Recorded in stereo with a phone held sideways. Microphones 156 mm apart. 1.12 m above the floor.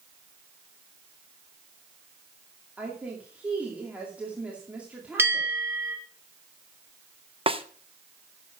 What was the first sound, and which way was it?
A woman speaking, 10° right (ahead or behind).